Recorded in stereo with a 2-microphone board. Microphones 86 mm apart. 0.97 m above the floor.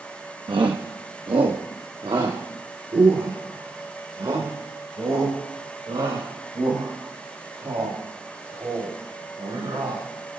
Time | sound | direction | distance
0.5 | a shout | 70° right (ahead or behind) | 0.8 m